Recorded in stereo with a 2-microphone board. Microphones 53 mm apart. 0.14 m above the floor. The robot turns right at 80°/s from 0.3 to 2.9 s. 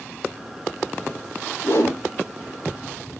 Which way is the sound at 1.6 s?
50° left (ahead or behind).